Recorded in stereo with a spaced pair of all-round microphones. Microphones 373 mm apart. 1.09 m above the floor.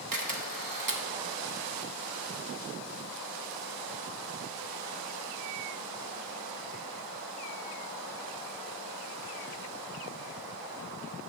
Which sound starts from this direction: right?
A camera shutter, at 0.1 s.